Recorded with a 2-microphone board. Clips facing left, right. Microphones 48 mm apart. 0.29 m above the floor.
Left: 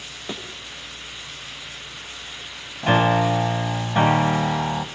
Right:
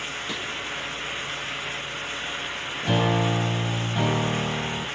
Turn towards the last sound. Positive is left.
turn(degrees=50)  # may be behind; listen again after turning